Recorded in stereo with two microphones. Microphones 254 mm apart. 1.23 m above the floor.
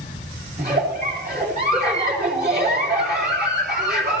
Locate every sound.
0.6 s a giggle: 40° right (ahead or behind), 3.5 m